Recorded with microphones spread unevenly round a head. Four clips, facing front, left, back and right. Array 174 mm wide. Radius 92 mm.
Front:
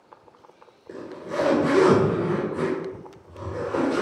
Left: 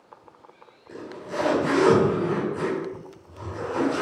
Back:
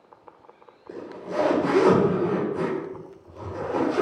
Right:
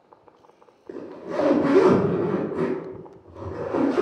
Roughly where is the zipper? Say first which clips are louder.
Right 3 dB, even; right.